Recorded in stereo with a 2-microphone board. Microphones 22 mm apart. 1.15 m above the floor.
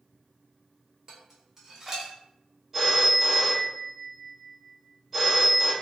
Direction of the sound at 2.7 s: 5° right (ahead or behind).